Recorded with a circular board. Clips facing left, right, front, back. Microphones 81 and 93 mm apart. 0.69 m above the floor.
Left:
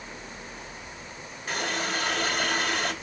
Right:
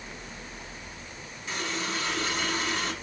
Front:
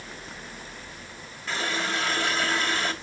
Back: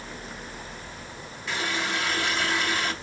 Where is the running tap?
50° left, 2 m.